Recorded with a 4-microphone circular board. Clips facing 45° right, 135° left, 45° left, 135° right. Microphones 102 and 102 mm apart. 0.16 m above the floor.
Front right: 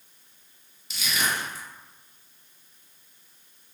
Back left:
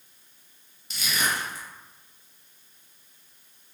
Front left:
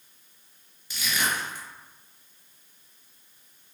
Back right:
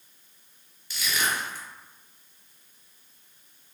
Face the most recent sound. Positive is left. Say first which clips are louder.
# even, even
turn(degrees=110)